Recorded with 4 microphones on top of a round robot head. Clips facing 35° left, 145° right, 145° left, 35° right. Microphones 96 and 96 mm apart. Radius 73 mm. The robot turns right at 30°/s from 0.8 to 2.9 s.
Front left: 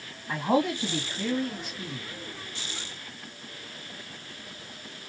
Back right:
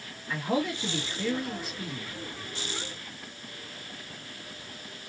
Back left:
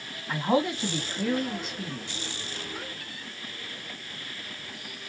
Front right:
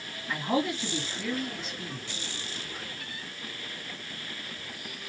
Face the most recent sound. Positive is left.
turn(degrees=140)